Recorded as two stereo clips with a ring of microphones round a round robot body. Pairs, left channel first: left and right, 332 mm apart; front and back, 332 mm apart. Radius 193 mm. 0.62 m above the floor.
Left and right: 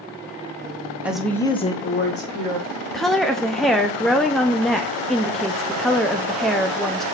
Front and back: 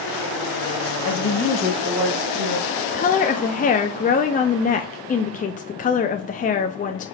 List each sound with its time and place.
1.0 s a woman speaking: 5° right, 1.2 m; by 2.7 s 145° left, 1.6 m
2.9 s a woman speaking: straight ahead, 0.6 m